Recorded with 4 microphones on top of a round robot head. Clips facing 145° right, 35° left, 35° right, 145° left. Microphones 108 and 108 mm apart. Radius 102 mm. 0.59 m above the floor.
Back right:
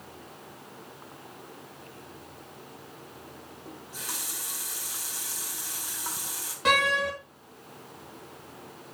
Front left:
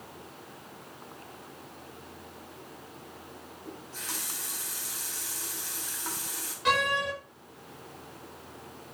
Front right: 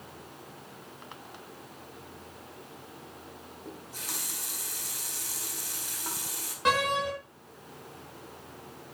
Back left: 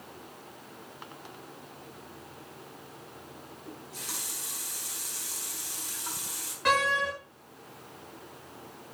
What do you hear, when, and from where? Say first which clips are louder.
3.6 s a running tap: even, front right 1 dB; 70° right, 3 m
6.7 s a door slam: back right 2 dB, even; 105° right, 6 m